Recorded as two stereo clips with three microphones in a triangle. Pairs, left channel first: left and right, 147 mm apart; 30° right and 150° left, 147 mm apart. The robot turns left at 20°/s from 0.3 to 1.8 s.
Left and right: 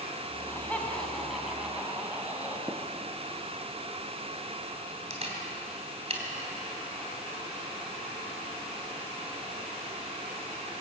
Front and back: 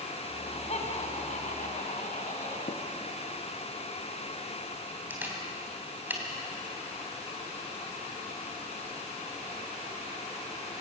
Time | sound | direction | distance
0.3 | laughter | 20° left | 4.5 m
2.7 | tapping | 20° right | 2.5 m
5.1 | a camera shutter | 135° right | 3.5 m